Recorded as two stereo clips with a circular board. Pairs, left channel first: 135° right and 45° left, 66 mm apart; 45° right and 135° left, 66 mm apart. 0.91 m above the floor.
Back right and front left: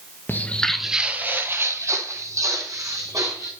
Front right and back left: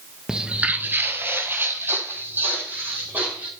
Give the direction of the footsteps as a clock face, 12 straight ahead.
5 o'clock.